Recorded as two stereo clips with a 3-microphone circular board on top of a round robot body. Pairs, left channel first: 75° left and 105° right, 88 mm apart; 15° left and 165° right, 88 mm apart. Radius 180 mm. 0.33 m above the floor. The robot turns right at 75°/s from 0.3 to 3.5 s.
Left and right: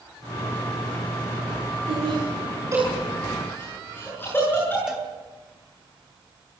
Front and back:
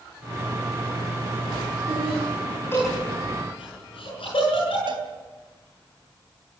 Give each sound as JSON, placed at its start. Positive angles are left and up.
{"t": 1.9, "sound": "laughter", "azimuth_deg": -110, "distance_m": 8.0}
{"t": 4.9, "sound": "a cowbell", "azimuth_deg": 175, "distance_m": 3.5}